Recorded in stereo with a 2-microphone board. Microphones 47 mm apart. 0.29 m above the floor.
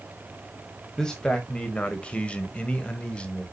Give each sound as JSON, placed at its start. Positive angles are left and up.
{"t": 1.0, "sound": "a man speaking", "side_deg": 15, "distance_m": 1.7}